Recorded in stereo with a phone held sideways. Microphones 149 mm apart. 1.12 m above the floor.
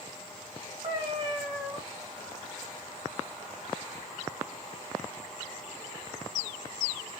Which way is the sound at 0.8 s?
40° right (ahead or behind).